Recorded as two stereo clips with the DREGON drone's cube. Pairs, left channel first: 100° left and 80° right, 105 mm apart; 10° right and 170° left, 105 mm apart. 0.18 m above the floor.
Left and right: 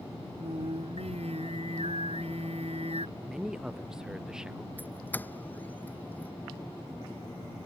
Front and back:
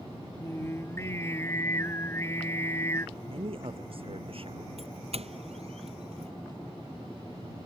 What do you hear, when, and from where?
0.4 s singing: 75° right
3.2 s a man speaking: 165° right
4.8 s a doorbell: 175° left